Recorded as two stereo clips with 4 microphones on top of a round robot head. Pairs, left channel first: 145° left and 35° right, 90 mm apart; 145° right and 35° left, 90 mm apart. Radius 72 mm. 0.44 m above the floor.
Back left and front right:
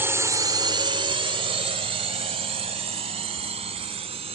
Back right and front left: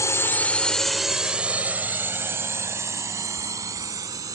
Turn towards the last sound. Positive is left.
turn(degrees=-20)